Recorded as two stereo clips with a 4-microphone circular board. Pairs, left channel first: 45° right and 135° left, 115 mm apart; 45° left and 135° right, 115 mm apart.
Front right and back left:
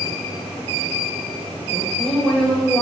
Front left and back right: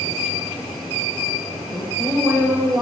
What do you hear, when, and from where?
1.7 s a woman speaking: 115° right, 0.9 m